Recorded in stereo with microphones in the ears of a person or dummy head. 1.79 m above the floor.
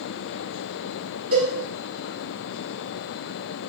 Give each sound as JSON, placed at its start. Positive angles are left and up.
{"t": 1.3, "sound": "a cowbell", "side_deg": -45, "distance_m": 2.0}